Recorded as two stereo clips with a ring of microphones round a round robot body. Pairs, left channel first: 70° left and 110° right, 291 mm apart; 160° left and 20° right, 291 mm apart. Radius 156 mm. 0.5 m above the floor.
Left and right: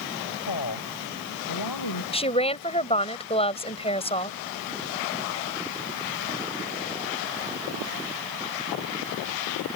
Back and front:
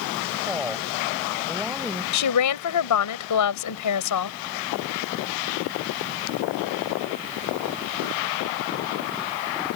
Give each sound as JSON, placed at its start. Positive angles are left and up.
{"t": 0.5, "sound": "a woman speaking", "azimuth_deg": 60}
{"t": 2.1, "sound": "a woman speaking", "azimuth_deg": 140}